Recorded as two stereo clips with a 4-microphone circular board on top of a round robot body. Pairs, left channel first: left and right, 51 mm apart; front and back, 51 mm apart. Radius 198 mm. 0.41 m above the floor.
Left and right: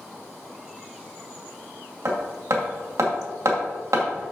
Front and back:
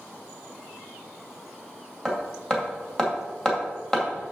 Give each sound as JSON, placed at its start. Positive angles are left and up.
{"t": 2.0, "sound": "hammering", "azimuth_deg": -75, "distance_m": 2.5}